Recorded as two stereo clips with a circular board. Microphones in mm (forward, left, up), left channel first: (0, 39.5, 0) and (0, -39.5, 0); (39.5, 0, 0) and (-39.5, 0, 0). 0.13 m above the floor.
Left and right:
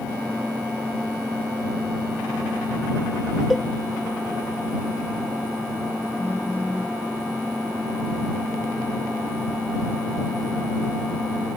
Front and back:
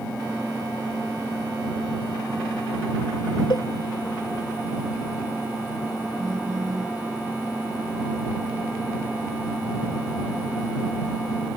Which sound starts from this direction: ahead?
A cowbell, at 3.5 s.